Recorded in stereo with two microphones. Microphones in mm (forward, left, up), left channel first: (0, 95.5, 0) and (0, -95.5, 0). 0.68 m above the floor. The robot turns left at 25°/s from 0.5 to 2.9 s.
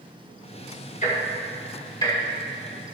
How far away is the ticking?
About 2 m.